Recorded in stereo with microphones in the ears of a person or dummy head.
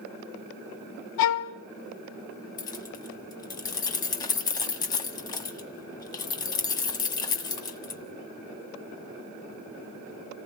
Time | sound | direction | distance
1.2 | a violin | 75° left (ahead or behind) | 1.0 m
2.6 | keys jangling | 25° left (ahead or behind) | 1.2 m